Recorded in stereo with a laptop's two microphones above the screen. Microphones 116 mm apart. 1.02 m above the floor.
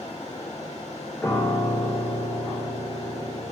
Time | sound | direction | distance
0.0 | a fan | 65° left (ahead or behind) | 1.5 m
1.2 | a piano | 15° left (ahead or behind) | 0.8 m